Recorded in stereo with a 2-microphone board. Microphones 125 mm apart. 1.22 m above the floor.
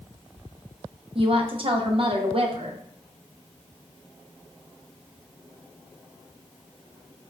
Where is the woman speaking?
50° right (ahead or behind), 0.6 m.